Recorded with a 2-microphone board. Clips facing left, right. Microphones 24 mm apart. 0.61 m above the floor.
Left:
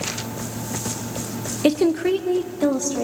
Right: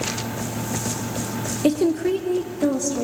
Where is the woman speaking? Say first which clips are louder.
Left 1 dB; 25° left (ahead or behind), 0.5 m; by 3.0 s 20° left (ahead or behind), 1.0 m.